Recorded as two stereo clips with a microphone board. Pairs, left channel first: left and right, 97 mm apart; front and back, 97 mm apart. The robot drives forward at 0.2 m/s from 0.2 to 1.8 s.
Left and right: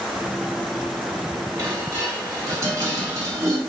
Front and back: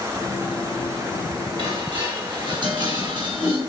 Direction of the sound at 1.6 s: 145° right.